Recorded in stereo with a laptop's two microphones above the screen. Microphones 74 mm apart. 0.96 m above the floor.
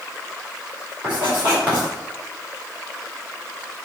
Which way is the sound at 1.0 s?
25° right (ahead or behind).